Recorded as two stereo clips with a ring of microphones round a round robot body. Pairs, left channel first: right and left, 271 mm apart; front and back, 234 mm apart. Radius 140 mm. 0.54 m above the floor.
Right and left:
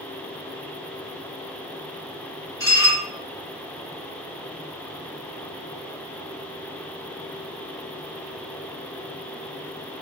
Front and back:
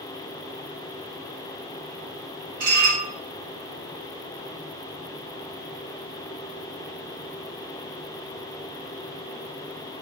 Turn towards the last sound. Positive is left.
turn(degrees=-165)